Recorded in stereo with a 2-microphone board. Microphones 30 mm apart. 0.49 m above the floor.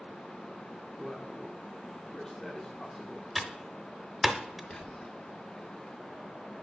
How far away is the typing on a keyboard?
About 0.7 m.